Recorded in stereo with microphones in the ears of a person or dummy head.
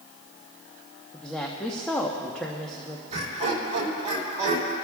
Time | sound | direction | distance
1.1 | a woman speaking | 10° left (ahead or behind) | 1.0 m
3.1 | laughter | 30° right (ahead or behind) | 3 m